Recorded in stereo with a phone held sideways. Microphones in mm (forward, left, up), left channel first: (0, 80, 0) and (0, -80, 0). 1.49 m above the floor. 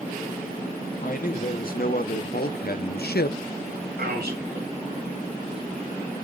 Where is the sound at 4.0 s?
80° right, 7.5 m.